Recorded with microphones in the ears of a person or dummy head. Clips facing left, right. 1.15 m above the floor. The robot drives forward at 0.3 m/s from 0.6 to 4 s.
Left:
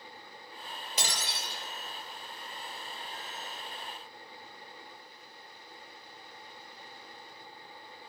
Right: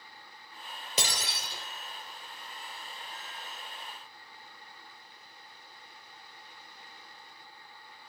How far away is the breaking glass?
About 3 m.